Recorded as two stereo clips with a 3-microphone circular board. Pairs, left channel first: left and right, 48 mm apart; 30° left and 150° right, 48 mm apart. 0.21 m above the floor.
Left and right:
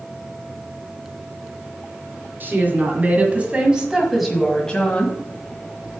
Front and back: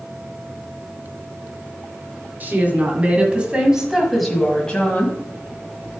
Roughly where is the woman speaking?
Behind right.